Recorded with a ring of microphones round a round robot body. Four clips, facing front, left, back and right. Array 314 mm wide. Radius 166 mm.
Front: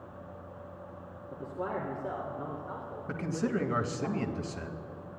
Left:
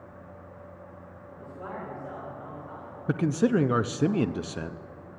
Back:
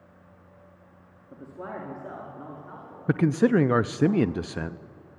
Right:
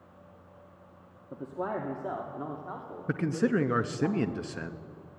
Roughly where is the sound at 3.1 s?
Behind.